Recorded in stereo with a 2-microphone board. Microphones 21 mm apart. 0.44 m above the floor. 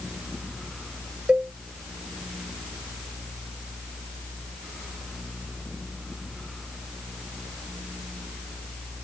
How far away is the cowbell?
About 1.0 m.